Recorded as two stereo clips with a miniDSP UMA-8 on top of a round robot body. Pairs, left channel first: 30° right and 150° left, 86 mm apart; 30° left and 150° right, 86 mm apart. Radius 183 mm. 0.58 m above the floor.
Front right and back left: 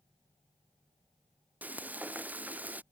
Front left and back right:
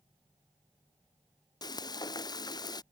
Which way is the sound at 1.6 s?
75° left.